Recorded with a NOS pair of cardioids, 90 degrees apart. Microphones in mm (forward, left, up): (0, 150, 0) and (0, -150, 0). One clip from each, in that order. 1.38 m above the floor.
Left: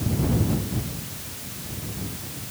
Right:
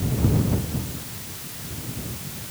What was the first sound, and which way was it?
Only background noise.